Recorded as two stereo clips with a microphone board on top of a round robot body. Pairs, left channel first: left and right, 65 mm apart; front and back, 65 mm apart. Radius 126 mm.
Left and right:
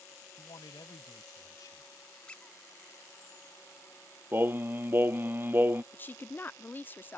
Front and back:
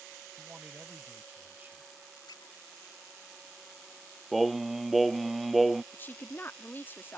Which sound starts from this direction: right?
Singing, at 4.3 s.